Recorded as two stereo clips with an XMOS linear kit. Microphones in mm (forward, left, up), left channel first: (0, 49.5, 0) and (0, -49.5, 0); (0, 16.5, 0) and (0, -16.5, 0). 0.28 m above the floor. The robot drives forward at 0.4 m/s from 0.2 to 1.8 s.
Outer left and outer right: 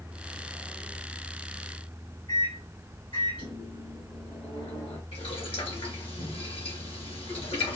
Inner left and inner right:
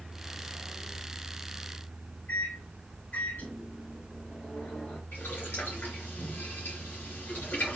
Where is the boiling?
75° left (ahead or behind), 2.5 m.